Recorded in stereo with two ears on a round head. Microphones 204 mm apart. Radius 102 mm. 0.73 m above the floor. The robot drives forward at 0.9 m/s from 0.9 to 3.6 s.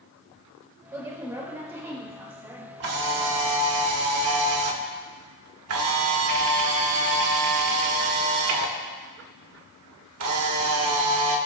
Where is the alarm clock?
No alarm clock in this recording.